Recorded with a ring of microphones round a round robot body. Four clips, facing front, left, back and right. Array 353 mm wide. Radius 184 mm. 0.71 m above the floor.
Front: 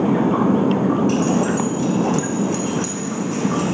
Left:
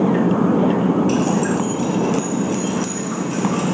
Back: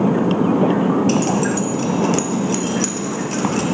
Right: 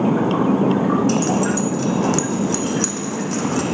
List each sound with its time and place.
1.1 s keys jangling: 135° right, 0.7 m